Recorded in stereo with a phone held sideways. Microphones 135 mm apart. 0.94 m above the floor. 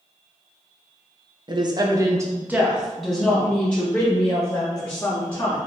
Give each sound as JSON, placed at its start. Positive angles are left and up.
{"t": 1.5, "sound": "a woman speaking", "side_deg": -35, "distance_m": 0.7}